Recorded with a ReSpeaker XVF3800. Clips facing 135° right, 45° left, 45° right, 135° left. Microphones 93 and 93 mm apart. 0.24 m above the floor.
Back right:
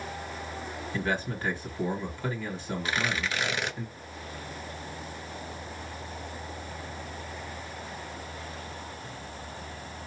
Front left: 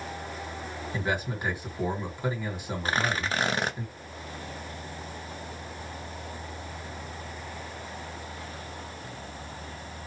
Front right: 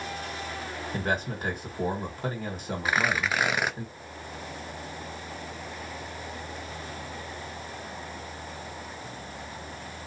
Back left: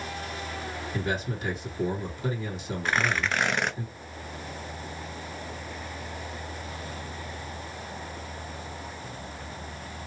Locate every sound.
0.9 s a man speaking: 25° right, 1.9 m
2.9 s tearing paper: 35° left, 0.6 m